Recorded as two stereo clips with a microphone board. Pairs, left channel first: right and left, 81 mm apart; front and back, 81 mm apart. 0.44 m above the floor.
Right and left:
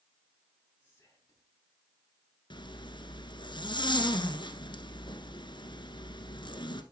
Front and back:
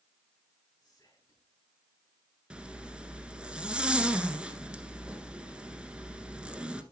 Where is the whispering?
30° right, 5 m.